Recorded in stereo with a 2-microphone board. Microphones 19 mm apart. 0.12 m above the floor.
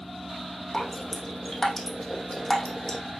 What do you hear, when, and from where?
0.7 s dripping: 25° left (ahead or behind), 2 m